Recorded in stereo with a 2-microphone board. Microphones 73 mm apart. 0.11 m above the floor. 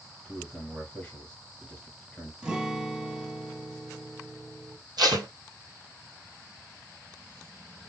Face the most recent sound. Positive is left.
turn(degrees=-75)  # may be behind; listen again after turning